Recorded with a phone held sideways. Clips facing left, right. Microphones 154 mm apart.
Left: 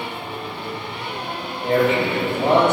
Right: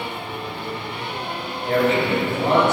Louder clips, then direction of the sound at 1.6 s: Left 1 dB; 20° left (ahead or behind).